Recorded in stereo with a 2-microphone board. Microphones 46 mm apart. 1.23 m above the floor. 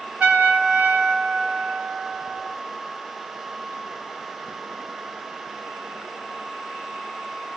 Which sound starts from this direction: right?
A trumpet, at 0.2 s.